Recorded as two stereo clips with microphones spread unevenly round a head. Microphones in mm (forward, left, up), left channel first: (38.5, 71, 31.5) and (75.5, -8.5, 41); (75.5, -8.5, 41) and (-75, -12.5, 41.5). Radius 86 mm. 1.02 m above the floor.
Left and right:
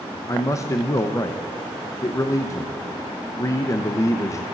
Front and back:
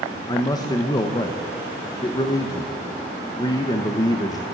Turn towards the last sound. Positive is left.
turn(degrees=65)